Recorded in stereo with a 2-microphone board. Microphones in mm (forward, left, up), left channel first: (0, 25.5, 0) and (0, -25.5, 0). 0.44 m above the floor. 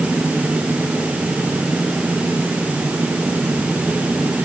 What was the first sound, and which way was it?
Only background noise.